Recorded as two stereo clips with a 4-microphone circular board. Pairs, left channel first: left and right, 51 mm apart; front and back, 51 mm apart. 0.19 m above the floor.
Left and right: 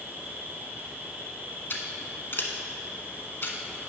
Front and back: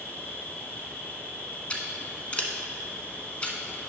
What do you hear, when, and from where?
0.0 s an insect: 45° right, 1.5 m
1.7 s scissors: 60° left, 0.8 m